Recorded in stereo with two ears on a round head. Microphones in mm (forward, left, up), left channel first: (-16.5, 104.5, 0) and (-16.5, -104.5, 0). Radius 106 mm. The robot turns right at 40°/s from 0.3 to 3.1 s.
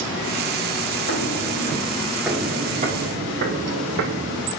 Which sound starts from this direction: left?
Footsteps, at 1.1 s.